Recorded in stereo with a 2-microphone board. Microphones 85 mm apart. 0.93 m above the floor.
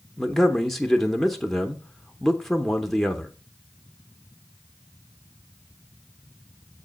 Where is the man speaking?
5° left (ahead or behind), 0.6 m.